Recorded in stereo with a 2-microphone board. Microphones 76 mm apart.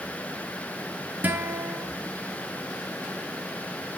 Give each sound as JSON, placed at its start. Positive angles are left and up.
{"t": 1.2, "sound": "a guitar", "side_deg": -25, "distance_m": 2.5}